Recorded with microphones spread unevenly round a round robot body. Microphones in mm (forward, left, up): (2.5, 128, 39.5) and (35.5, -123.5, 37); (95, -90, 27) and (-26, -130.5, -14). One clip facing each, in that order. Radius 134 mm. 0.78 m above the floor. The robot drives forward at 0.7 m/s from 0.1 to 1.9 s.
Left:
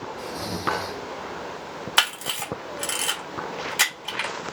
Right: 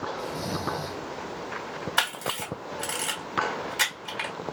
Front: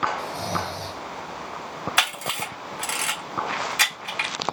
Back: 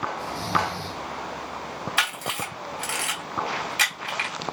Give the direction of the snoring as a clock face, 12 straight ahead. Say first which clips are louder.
Left 3 dB, back 2 dB; 11 o'clock.